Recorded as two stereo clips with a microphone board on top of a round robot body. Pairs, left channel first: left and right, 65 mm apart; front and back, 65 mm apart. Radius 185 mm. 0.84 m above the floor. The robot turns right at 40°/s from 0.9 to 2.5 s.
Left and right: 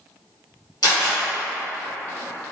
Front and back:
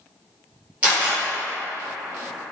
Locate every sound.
0.8 s a camera shutter: 105° left, 0.6 m; by 1.2 s 115° left, 0.6 m